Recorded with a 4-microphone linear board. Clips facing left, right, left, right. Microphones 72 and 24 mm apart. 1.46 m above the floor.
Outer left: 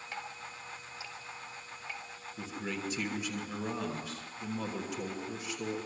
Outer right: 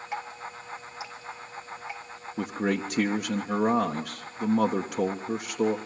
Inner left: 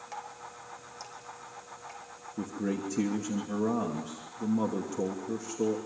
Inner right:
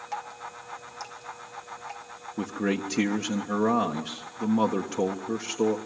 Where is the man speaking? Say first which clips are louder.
Outer right 11 dB, inner right 5 dB; 70° right (ahead or behind), 1.3 m.